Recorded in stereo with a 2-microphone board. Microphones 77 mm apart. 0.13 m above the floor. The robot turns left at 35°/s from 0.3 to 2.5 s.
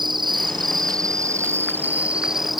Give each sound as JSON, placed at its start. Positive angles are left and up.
{"t": 0.0, "sound": "an insect", "azimuth_deg": -100}